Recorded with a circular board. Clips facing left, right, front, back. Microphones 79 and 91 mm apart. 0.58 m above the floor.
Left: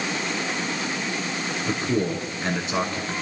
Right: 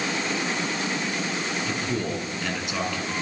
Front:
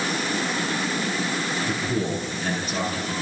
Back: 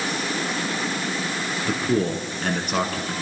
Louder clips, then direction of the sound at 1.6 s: Left 3 dB, back 7 dB; 150° left.